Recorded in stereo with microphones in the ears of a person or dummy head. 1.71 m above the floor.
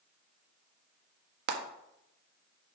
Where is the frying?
55° right (ahead or behind), 1.5 m.